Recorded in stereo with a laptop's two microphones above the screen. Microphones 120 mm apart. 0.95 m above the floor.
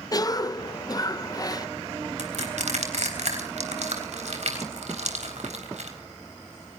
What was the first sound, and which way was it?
A cough, 30° left (ahead or behind).